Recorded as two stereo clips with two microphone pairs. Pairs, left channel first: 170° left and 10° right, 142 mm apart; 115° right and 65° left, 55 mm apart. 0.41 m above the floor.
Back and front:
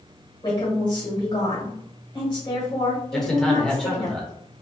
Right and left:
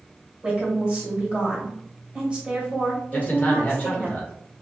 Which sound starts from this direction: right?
A man speaking, at 3.1 s.